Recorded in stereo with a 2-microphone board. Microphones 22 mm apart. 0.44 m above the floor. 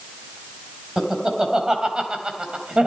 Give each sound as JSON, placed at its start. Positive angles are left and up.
{"t": 1.0, "sound": "laughter", "side_deg": -30, "distance_m": 3.0}